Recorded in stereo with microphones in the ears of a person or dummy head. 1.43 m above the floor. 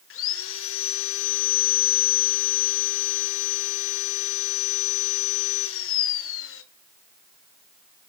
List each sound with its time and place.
0.1 s sawing: 65° left (ahead or behind), 0.8 m